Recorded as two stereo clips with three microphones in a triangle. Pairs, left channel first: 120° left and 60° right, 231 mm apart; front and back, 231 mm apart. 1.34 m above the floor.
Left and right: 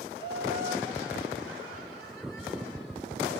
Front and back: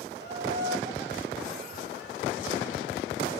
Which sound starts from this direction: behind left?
Laughter, at 0.2 s.